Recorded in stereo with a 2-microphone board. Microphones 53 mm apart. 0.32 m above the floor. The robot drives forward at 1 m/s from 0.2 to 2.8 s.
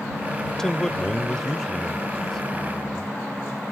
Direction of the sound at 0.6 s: 10° left (ahead or behind).